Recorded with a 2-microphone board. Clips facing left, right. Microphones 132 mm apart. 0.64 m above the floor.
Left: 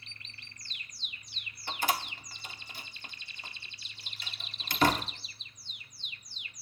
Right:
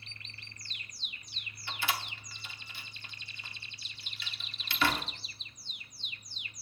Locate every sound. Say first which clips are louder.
1.7 s a door slam: left 4 dB; 45° left (ahead or behind), 0.9 m